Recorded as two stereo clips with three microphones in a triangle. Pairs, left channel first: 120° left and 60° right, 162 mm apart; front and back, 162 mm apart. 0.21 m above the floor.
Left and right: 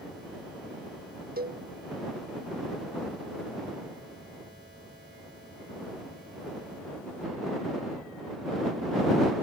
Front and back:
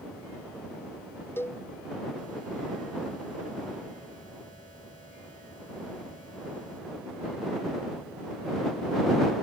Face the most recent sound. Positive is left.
turn(degrees=-75)